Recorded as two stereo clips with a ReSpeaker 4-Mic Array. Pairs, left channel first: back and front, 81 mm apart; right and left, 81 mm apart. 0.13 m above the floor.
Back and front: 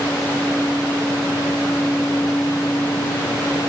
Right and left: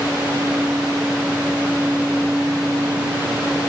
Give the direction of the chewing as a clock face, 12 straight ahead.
No chewing in this recording.